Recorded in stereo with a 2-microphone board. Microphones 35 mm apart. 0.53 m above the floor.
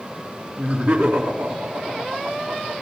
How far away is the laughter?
About 4 m.